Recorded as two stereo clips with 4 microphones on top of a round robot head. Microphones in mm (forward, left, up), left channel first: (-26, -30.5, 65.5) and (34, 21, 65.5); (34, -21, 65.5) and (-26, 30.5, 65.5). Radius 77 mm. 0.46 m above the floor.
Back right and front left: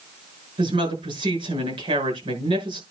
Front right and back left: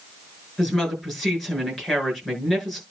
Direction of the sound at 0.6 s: 45° left.